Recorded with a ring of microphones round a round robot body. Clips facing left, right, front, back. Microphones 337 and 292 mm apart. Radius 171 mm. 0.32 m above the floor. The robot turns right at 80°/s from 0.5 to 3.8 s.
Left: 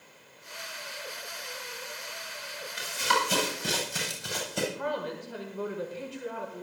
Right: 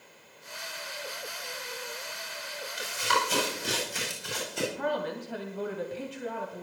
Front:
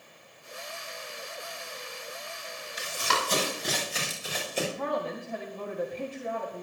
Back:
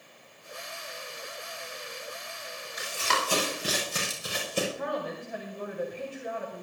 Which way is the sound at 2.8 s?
55° left.